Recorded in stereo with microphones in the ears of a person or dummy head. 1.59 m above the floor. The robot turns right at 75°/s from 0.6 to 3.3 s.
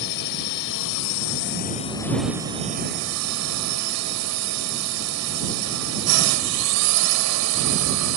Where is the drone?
60° left; by 8.2 s 95° right.